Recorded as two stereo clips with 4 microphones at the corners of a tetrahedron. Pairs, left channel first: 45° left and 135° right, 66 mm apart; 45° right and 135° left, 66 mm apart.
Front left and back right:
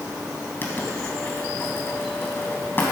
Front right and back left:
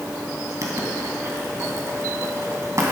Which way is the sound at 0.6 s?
100° left.